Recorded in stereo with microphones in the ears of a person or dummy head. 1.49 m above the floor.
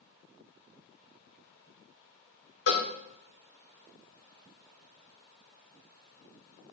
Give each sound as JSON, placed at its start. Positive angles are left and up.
{"t": 2.7, "sound": "a cowbell", "side_deg": 60, "distance_m": 1.2}